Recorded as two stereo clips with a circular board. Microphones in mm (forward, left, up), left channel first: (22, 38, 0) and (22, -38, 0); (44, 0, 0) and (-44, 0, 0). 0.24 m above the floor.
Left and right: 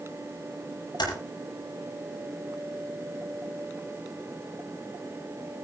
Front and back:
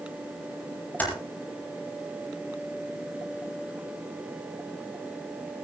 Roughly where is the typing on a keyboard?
Left.